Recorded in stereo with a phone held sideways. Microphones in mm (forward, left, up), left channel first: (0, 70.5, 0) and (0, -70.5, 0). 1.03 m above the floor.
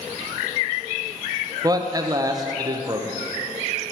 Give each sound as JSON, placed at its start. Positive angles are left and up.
{"t": 1.6, "sound": "a man speaking", "side_deg": -25, "distance_m": 0.5}